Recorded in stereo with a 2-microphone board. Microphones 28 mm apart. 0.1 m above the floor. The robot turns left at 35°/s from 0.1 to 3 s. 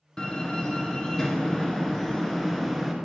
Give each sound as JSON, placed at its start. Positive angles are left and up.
{"t": 0.2, "sound": "a door slam", "side_deg": 20, "distance_m": 0.8}